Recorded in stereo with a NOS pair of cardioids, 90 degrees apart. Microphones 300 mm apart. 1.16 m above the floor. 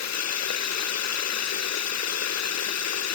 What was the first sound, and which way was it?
Running water, 60° left.